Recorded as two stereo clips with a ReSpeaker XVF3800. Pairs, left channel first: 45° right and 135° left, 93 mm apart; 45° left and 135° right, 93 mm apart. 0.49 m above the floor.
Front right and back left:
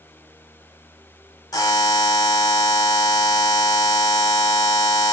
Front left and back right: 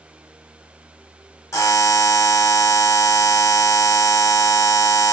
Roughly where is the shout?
No shout in this recording.